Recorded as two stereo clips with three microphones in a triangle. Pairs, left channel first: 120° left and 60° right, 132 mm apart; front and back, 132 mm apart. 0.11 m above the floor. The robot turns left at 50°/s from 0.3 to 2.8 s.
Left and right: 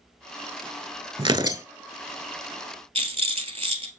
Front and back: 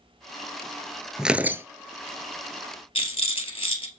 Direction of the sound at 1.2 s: 95° right.